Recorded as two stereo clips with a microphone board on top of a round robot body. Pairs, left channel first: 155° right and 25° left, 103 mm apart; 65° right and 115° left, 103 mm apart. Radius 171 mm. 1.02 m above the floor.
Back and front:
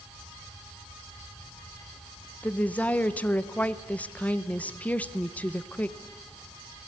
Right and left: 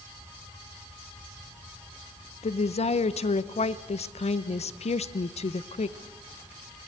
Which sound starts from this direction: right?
A woman speaking, at 2.4 s.